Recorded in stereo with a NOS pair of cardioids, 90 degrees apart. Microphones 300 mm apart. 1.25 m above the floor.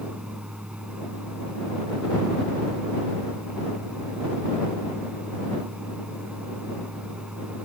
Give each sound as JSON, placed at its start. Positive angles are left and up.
{"t": 0.0, "sound": "a fan", "azimuth_deg": -5}